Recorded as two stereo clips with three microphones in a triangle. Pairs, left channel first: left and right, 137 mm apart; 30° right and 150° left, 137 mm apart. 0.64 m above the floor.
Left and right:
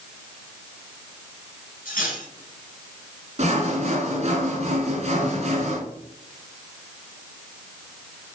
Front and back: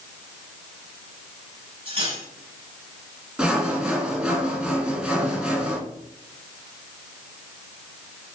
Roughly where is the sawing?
Behind right.